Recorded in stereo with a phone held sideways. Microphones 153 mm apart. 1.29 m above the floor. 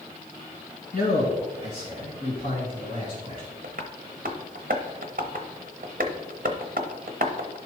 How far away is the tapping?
About 0.9 m.